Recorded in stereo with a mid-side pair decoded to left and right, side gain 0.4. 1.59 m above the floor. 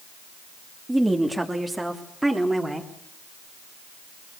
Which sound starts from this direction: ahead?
A woman speaking, at 0.9 s.